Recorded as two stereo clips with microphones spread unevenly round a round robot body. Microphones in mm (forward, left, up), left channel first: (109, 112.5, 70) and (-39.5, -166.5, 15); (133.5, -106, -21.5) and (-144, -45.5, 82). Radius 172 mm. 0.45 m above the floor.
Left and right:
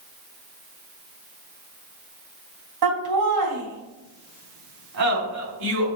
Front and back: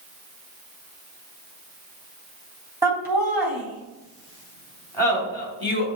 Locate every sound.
2.8 s laughter: 105° right, 3.5 m; by 5.9 s 80° right, 4 m